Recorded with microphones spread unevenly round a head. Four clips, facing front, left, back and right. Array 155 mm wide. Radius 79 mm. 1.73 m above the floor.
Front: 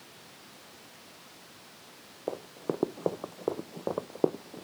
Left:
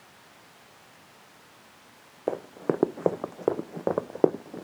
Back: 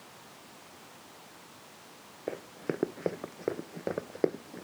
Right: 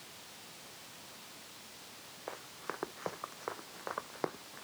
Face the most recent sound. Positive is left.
turn(degrees=95)